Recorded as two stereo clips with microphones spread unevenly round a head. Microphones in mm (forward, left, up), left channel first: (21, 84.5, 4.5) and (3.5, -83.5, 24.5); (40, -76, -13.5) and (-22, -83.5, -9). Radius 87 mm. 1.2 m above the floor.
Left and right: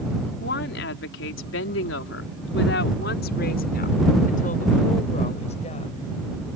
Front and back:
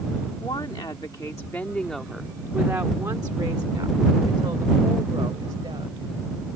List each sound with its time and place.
0.4 s a woman speaking: 60° left; by 6.1 s 145° left